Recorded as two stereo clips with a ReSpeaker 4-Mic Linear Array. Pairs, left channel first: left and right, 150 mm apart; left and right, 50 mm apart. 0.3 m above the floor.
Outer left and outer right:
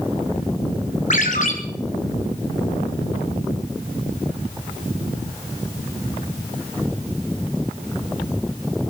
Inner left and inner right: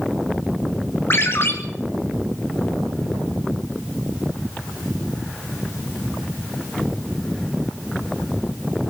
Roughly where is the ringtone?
Left.